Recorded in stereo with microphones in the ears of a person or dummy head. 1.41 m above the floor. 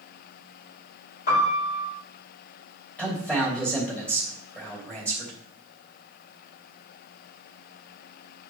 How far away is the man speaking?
About 2.5 m.